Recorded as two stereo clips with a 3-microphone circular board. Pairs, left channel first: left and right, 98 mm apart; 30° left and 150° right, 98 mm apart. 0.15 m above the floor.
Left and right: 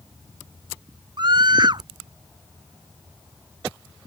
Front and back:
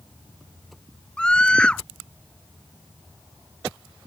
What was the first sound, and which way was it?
A scream, 50° right.